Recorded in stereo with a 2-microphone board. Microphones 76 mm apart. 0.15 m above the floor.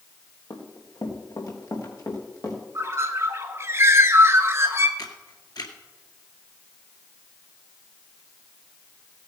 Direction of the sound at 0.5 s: 55° left (ahead or behind).